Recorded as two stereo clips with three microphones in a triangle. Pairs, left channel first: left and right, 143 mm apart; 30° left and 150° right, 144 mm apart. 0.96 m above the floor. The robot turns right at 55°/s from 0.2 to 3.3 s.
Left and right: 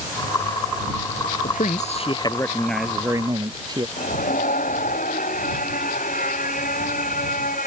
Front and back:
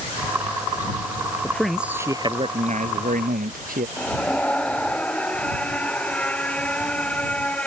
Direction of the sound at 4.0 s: 110° left.